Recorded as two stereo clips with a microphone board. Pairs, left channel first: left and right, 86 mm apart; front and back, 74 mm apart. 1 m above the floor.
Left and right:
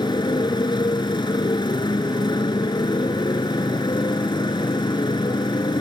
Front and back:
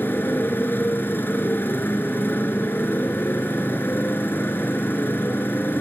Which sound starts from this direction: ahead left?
A motorcycle, at 0.0 s.